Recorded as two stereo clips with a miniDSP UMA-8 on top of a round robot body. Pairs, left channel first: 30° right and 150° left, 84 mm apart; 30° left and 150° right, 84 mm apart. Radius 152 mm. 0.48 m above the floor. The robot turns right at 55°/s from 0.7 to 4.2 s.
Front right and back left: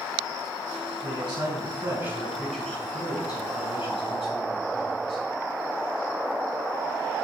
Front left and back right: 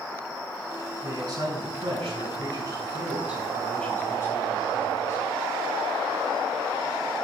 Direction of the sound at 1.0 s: 160° left.